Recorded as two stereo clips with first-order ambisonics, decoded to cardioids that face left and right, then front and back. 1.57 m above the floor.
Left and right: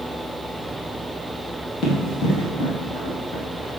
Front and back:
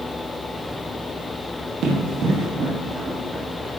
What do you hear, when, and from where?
1.8 s running footsteps: 140° left, 3 m; by 3.7 s 110° left, 4 m